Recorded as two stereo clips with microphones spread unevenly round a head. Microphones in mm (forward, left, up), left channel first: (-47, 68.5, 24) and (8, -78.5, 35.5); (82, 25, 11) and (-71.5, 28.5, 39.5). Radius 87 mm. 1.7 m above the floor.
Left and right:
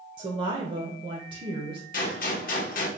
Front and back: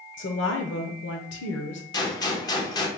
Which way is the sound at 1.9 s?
70° left.